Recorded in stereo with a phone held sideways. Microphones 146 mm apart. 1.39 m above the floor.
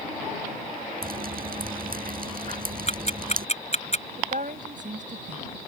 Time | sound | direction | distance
1.0 | dripping | 80° right | ?
2.9 | ticking | 50° left (ahead or behind) | ?
4.2 | a woman speaking | 60° right (ahead or behind) | ?